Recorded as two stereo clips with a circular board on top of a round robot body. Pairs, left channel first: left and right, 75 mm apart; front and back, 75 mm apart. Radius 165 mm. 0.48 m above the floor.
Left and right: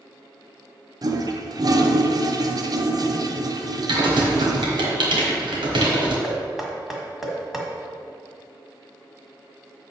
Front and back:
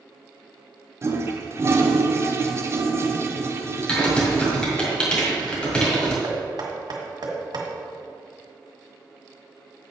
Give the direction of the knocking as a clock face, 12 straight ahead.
6 o'clock.